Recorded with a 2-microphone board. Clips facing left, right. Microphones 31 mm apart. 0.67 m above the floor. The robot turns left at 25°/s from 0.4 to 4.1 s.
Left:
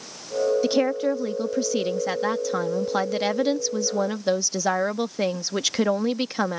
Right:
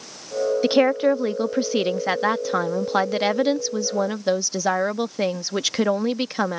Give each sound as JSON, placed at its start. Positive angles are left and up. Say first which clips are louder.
{"t": 0.6, "sound": "a woman speaking", "louder": "right 4 dB", "side_deg": -30}